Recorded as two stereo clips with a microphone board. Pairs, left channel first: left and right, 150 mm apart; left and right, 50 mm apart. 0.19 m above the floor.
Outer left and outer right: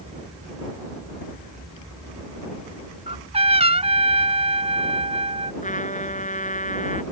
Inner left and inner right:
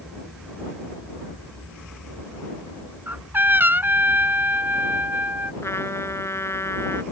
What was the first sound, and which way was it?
A trumpet, 45° right (ahead or behind).